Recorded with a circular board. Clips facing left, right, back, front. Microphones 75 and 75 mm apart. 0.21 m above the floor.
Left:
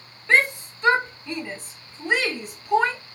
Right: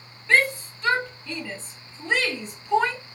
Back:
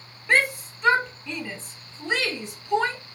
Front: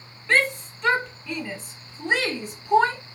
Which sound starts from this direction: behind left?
A shout, at 0.3 s.